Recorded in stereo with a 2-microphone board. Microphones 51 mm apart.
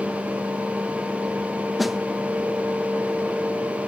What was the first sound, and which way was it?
A snare drum, centre (ahead or behind).